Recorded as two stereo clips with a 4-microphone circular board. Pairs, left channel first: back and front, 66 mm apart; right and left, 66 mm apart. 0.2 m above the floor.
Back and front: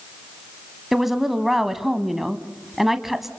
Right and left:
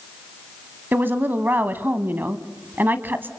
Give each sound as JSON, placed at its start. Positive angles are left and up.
{"t": 0.9, "sound": "a woman speaking", "azimuth_deg": 80, "distance_m": 1.1}